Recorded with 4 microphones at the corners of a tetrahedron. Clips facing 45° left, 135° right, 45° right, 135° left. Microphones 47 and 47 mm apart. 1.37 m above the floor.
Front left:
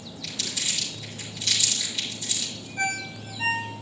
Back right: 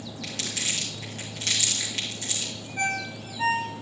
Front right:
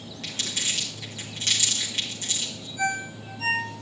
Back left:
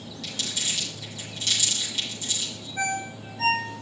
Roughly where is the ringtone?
Behind.